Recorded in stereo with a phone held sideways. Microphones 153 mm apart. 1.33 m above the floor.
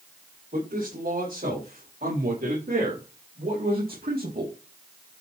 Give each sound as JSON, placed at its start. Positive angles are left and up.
{"t": 0.5, "sound": "a man speaking", "side_deg": -80, "distance_m": 6.0}